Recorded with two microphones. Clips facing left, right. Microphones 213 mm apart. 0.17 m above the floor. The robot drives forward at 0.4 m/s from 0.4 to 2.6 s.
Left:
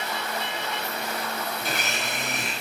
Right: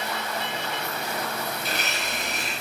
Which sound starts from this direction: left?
A blender, at 1.6 s.